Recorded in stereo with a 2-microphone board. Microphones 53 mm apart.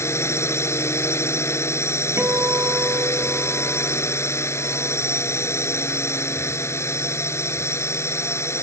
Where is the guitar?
50° right (ahead or behind).